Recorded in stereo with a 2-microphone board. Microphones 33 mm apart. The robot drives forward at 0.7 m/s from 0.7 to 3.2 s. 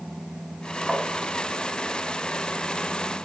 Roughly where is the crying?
No crying in this recording.